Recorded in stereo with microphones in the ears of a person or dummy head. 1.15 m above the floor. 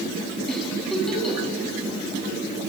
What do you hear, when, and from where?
0.5 s a giggle: 5° left (ahead or behind), 5.5 m